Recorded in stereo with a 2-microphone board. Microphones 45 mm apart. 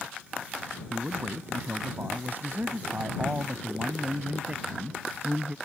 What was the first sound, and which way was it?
A man speaking, 45° right (ahead or behind).